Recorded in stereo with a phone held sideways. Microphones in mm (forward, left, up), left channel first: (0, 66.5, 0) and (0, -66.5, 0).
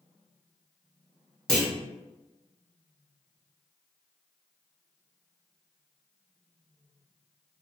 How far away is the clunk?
About 0.9 m.